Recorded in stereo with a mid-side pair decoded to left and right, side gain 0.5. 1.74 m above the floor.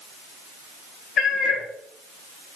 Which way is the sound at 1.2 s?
65° left.